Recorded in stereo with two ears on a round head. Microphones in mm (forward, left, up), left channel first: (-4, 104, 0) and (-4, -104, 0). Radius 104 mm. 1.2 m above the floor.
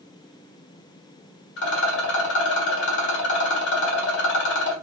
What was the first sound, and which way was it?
A rattle, 55° left (ahead or behind).